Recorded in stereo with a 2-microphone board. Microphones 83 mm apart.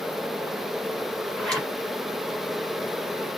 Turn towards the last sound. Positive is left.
turn(degrees=5)  # may be behind; listen again after turning